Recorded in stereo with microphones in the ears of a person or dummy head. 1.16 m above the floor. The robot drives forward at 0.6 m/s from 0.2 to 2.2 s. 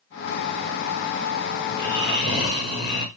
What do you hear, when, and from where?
1.7 s snoring: 60° left (ahead or behind), 2.5 m; by 3.1 s 55° left (ahead or behind), 2.5 m